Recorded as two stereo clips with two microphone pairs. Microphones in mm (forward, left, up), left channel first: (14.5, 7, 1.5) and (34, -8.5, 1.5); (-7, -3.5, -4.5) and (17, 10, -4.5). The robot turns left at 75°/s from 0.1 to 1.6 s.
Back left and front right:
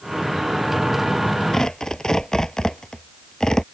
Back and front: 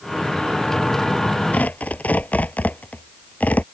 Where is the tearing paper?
150° right; by 3.6 s 155° right.